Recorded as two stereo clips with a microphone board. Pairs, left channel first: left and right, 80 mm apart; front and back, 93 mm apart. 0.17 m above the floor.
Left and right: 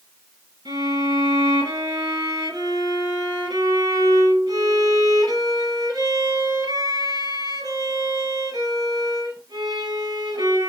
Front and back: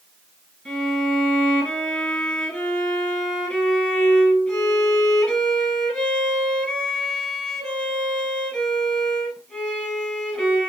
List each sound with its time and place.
0.7 s a violin: 85° right, 1.9 m